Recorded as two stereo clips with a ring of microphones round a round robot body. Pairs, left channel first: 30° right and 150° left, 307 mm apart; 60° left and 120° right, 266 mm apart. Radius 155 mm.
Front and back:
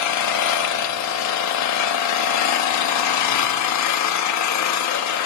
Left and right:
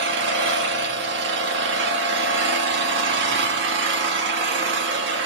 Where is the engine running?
65° right, 1.4 m.